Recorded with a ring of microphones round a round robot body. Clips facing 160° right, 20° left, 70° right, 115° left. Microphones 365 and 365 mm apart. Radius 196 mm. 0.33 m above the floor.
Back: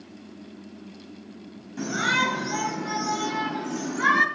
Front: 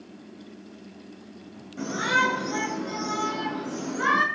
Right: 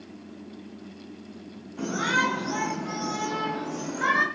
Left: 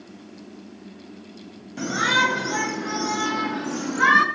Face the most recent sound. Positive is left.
turn(degrees=120)